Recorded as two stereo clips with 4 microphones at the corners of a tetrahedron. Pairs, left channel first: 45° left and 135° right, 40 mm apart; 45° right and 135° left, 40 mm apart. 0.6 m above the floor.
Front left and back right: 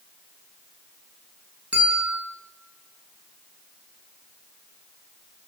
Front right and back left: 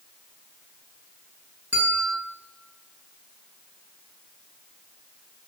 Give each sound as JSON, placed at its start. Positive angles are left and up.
{"t": 1.7, "sound": "a bell", "azimuth_deg": 170, "distance_m": 6.5}